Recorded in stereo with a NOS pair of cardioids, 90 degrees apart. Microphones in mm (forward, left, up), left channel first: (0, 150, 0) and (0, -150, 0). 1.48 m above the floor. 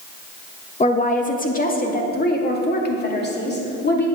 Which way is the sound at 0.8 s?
25° left.